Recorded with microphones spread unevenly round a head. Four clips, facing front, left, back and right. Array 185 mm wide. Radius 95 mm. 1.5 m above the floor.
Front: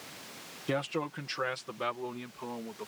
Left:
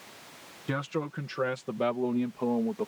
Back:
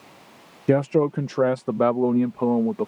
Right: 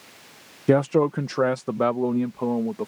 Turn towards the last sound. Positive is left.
turn(degrees=-170)